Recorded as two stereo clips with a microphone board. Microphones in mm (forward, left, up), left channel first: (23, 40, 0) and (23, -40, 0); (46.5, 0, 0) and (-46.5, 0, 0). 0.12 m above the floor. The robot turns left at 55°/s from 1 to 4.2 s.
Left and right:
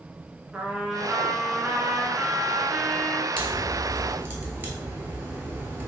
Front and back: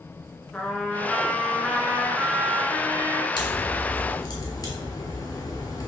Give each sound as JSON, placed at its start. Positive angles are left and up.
{"t": 0.5, "sound": "a trumpet", "azimuth_deg": -40, "distance_m": 0.9}
{"t": 3.4, "sound": "a crack", "azimuth_deg": 15, "distance_m": 1.0}